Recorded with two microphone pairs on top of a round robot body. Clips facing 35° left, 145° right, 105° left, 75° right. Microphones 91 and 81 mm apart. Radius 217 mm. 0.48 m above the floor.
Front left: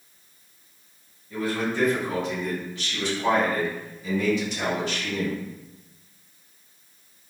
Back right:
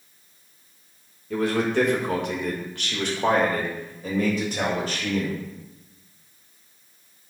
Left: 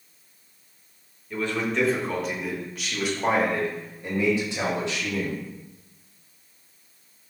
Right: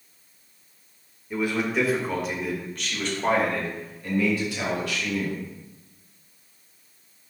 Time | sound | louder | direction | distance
1.3 | a man speaking | back right 4 dB, right 1 dB | 150° right | 2.5 m